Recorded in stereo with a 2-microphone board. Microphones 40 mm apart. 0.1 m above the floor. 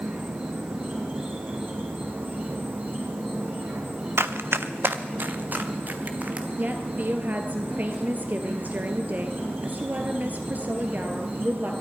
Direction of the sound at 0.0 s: 65° right (ahead or behind).